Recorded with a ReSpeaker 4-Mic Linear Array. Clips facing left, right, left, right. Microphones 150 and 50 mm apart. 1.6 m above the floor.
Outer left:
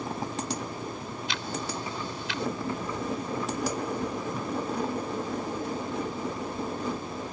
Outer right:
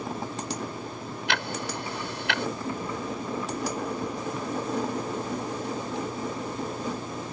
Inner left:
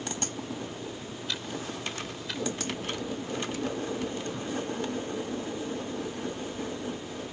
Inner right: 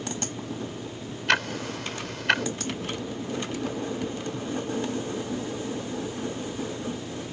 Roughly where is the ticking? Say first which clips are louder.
Outer right 4 dB, inner right 12 dB; right.